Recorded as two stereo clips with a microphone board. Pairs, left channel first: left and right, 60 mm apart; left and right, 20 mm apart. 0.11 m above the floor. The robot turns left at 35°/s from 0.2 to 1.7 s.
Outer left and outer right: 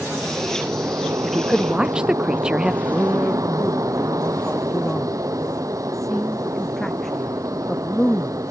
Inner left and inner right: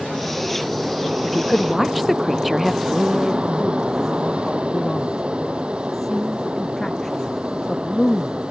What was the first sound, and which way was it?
An aircraft, 25° right.